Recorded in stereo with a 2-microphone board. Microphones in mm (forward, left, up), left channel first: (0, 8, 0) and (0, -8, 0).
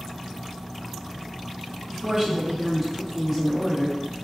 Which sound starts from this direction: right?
A woman speaking, at 1.9 s.